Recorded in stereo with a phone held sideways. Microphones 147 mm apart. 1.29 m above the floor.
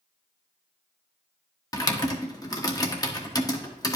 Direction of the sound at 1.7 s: 25° left (ahead or behind).